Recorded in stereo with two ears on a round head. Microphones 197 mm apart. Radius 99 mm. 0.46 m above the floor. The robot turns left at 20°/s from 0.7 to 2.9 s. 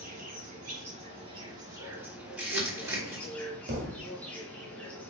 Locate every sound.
0.0 s an insect: 145° right, 1.8 m; by 5.1 s 175° left, 1.8 m
2.4 s crumpling: 5° right (ahead or behind), 1.4 m; by 3.3 s 10° right (ahead or behind), 1.4 m
3.7 s a thud: 40° right (ahead or behind), 1.5 m